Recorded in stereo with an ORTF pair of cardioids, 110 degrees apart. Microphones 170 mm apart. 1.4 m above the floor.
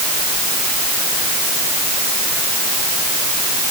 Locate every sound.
Only background noise.